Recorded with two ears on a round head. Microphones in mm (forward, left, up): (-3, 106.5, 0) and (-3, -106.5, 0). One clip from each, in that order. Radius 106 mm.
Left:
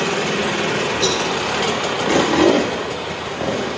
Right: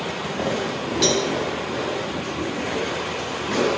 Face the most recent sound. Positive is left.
turn(degrees=-55)  # may be behind; listen again after turning